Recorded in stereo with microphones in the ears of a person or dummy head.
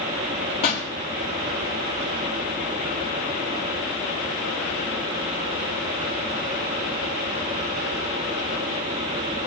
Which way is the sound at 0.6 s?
30° left (ahead or behind).